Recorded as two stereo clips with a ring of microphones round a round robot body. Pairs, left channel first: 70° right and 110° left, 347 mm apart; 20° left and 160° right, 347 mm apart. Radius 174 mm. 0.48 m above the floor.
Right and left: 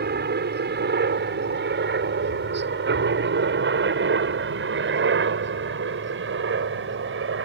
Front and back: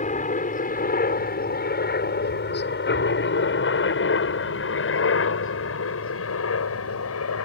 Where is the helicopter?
75° left; by 7.5 s 60° left.